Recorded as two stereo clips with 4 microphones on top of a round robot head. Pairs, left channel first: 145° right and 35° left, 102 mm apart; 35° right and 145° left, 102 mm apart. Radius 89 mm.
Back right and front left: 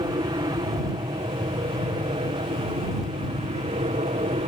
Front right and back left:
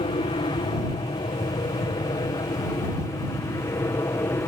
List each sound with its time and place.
0.0 s an aircraft: 5° right; by 4.5 s 25° left